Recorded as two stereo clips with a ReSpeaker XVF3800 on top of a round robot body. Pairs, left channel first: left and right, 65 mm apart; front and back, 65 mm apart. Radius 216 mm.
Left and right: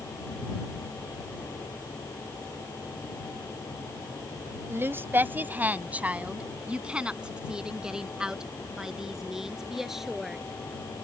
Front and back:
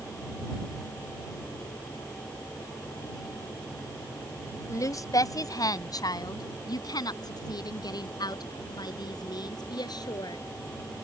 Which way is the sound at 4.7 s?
35° right.